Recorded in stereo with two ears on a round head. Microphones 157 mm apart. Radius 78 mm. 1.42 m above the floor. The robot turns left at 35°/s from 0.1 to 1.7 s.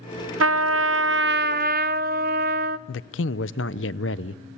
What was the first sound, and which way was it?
A trumpet, 80° right.